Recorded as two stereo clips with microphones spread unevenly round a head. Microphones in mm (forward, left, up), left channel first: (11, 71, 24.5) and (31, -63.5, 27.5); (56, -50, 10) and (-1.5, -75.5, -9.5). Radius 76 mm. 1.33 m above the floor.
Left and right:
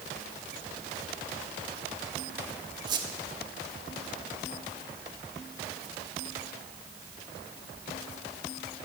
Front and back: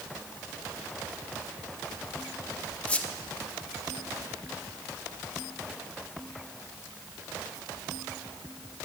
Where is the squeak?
30° right, 1.2 m.